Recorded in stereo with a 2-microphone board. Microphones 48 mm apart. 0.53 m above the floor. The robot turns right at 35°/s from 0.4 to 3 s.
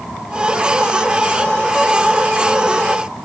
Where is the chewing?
I don't hear chewing.